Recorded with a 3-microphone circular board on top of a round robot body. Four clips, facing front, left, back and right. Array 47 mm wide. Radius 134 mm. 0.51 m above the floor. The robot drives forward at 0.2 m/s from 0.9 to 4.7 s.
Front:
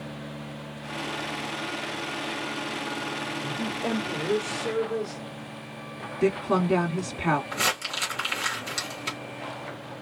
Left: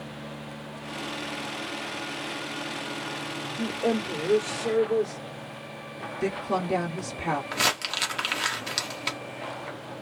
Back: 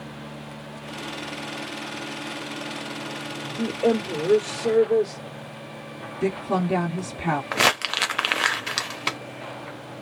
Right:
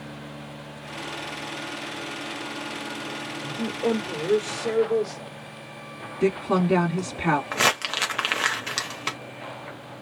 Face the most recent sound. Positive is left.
turn(degrees=-155)